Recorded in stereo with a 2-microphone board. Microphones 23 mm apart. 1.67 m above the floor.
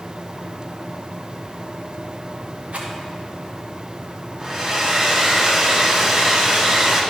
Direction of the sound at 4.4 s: 25° right (ahead or behind).